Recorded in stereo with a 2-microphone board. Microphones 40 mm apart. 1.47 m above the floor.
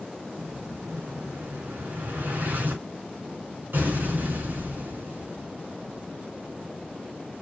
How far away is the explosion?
About 4.5 m.